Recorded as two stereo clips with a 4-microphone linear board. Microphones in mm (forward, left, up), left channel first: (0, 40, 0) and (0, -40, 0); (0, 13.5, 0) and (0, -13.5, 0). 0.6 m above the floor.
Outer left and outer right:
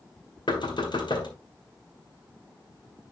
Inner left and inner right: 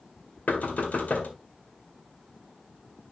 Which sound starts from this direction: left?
Knocking, at 0.5 s.